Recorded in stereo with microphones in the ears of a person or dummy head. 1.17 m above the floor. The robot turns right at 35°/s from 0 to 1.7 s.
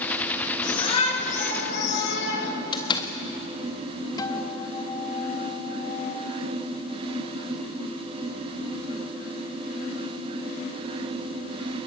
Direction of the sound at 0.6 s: 20° left.